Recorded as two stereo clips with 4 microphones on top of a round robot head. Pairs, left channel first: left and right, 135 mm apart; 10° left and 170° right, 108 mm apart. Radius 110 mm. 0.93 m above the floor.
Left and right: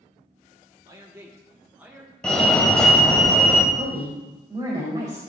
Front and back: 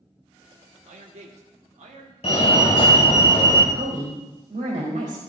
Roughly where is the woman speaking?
Behind right.